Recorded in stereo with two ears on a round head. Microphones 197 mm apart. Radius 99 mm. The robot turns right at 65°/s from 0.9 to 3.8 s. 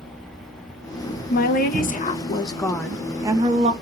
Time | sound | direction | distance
1.3 | a woman speaking | 75° left | 1.1 m